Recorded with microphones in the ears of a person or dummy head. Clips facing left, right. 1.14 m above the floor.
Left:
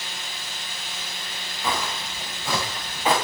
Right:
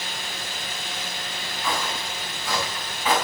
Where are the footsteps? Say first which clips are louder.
Left 1 dB; 20° left (ahead or behind), 5 m; by 3.1 s 30° left (ahead or behind), 6 m.